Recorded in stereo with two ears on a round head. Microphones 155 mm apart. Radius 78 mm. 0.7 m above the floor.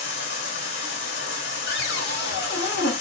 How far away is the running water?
About 2.5 m.